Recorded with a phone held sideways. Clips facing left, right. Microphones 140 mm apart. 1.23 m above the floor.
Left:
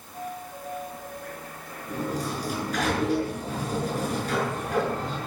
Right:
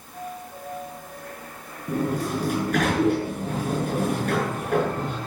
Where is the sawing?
I don't hear sawing.